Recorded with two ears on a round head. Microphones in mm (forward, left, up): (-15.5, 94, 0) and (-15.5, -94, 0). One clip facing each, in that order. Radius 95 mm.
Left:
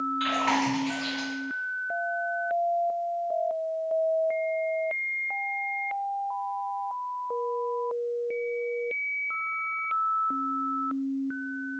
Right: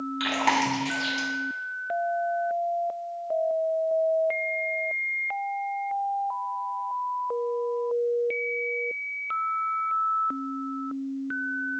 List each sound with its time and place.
0.2 s chewing: 65° right (ahead or behind), 1.1 m